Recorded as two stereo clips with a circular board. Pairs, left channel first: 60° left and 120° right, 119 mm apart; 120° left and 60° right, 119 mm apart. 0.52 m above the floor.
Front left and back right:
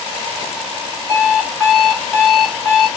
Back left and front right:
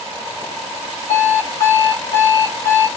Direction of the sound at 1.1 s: 145° left.